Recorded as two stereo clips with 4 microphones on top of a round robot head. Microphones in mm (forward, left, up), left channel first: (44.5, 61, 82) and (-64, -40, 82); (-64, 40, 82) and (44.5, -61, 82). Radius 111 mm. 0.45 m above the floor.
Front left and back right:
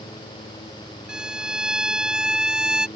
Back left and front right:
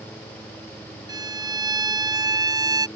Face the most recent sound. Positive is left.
turn(degrees=-60)